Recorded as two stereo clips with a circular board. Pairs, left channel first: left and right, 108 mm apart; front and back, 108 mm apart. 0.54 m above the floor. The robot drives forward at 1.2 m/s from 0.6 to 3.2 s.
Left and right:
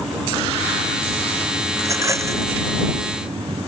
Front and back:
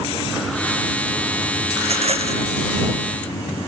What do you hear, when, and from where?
1.8 s a rattle: 155° right